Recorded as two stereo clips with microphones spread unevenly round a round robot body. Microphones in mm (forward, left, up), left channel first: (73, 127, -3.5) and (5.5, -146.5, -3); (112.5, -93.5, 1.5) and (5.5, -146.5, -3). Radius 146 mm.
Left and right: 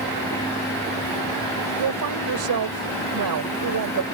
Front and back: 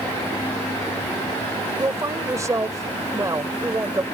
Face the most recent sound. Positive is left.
turn(degrees=-90)